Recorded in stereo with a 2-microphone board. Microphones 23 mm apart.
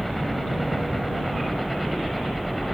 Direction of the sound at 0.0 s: 5° left (ahead or behind).